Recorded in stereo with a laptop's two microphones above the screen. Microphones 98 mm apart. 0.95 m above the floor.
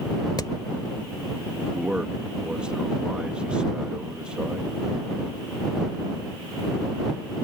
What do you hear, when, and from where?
0.4 s hammering: 45° left (ahead or behind)
1.7 s a man speaking: 10° right (ahead or behind)